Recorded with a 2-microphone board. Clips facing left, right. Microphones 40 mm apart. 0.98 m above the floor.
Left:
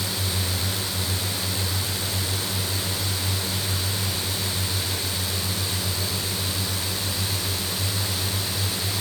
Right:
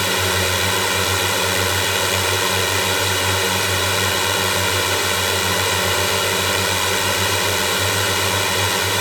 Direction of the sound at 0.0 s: 80° right.